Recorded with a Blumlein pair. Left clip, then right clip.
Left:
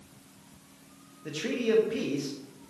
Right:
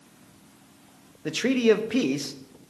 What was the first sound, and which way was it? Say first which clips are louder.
A man speaking: right 8 dB; 30° right.